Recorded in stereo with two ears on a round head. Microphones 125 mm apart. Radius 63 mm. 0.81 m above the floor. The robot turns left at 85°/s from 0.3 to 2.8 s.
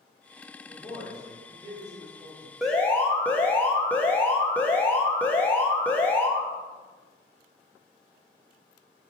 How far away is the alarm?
About 0.5 m.